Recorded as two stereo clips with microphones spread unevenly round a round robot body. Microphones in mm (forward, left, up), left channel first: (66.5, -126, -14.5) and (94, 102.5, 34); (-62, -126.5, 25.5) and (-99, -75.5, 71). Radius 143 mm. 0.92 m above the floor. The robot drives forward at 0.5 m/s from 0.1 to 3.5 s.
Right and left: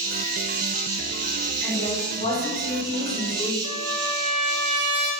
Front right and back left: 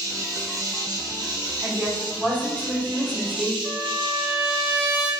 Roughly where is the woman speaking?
Behind right.